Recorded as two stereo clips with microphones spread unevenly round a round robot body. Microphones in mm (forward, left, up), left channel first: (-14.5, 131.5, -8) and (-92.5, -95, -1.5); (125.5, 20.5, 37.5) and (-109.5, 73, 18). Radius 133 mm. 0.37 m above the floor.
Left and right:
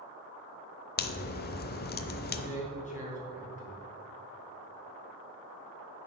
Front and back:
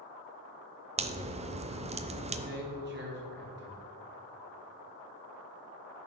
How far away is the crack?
About 0.6 m.